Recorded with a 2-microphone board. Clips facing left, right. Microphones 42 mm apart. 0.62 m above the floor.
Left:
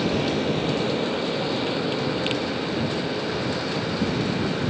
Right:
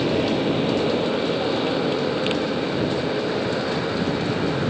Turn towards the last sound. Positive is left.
turn(degrees=-20)  # may be behind; listen again after turning